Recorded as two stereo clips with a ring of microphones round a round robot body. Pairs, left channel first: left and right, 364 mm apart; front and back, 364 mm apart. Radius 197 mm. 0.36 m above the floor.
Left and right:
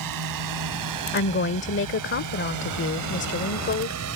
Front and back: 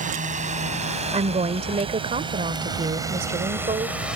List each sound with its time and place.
0.0 s a drone: 115° right; by 4.2 s 95° right
1.1 s a woman speaking: 120° left